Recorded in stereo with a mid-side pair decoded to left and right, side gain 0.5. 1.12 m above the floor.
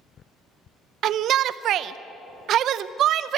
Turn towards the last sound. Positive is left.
turn(degrees=-65)